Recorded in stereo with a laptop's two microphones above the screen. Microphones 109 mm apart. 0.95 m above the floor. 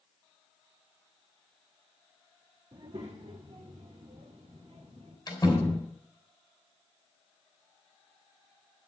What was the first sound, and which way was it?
A child speaking, 55° right (ahead or behind).